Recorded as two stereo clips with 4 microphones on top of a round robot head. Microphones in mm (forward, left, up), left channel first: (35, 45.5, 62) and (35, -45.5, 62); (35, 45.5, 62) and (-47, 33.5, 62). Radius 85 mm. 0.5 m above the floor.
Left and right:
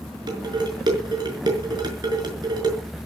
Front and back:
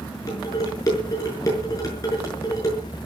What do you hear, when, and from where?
0.3 s dishes clattering: 50° right, 5.5 m